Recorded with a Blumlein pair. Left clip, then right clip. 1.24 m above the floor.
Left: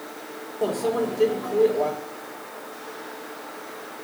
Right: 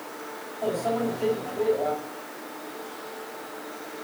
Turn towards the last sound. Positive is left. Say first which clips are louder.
# left 2 dB
turn(degrees=45)